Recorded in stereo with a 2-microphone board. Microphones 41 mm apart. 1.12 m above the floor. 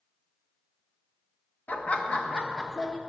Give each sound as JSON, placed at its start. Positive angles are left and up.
{"t": 1.7, "sound": "laughter", "side_deg": 45, "distance_m": 1.0}